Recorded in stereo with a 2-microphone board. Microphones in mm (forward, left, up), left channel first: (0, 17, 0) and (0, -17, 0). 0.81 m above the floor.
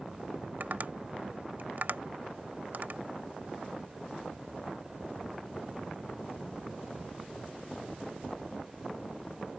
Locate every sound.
0.6 s tapping: 60° right (ahead or behind)